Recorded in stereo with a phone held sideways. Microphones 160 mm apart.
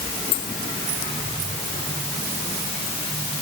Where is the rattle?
I don't hear a rattle.